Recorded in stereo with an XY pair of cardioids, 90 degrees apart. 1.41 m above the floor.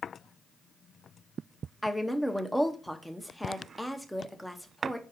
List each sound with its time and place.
1.8 s a woman speaking: straight ahead, 0.8 m